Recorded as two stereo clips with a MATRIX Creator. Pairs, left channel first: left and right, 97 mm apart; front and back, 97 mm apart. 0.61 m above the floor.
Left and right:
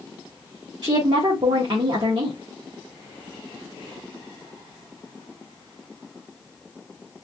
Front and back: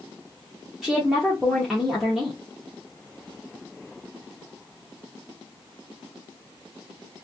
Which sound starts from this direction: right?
A woman speaking, at 0.8 s.